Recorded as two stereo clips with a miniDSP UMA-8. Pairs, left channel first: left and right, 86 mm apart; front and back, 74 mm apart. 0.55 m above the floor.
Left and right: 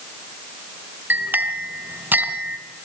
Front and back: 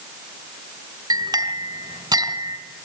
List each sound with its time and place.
1.1 s a clink: 155° right, 2 m